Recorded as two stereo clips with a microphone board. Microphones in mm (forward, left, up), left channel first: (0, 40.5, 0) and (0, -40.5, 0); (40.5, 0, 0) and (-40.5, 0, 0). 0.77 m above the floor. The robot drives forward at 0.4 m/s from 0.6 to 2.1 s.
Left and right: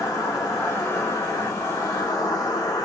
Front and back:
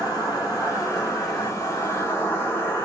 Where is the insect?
40° left, 1.8 m; by 2.9 s 55° left, 1.3 m.